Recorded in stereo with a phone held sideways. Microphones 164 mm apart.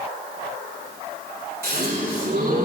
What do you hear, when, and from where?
1.6 s a gasp: 75° right (ahead or behind), 5.5 m